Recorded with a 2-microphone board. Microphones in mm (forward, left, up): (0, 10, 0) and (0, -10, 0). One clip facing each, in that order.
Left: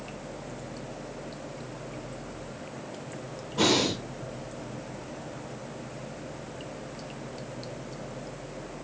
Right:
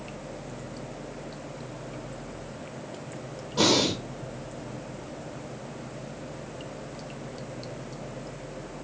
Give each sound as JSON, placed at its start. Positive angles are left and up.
{"t": 3.6, "sound": "breathing", "side_deg": -80, "distance_m": 1.8}